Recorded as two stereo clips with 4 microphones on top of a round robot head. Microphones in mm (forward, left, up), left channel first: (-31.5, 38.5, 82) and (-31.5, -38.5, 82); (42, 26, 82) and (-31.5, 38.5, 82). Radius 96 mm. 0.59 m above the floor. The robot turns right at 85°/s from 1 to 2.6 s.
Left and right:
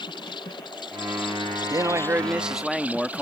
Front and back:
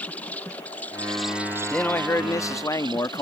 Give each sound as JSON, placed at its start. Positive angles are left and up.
{"t": 0.0, "sound": "an insect", "azimuth_deg": 65}
{"t": 1.7, "sound": "a man speaking", "azimuth_deg": -80}